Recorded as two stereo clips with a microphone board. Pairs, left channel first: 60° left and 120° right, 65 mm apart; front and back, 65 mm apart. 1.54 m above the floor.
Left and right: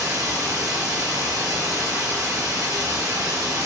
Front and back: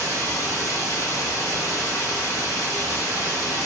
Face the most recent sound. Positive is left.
turn(degrees=-125)